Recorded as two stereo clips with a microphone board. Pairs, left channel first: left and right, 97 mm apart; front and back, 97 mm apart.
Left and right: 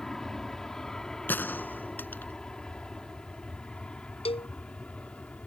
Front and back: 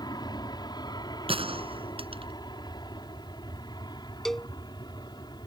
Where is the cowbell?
85° left.